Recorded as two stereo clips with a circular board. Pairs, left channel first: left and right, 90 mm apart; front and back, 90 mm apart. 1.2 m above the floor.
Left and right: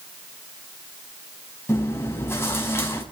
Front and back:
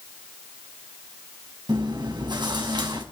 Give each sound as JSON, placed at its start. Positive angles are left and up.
{"t": 1.7, "sound": "chewing", "azimuth_deg": 150, "distance_m": 4.5}